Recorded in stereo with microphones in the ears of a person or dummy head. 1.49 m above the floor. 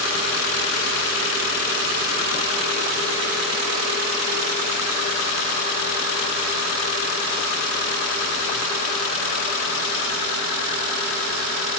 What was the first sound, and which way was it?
Only background noise.